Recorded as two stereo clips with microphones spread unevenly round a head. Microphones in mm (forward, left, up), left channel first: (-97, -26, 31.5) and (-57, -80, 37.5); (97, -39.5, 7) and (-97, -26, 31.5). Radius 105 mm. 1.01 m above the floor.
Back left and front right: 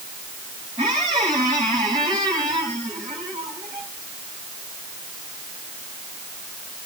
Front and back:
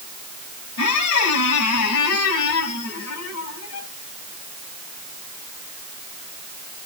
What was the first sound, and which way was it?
A squeak, 5° right.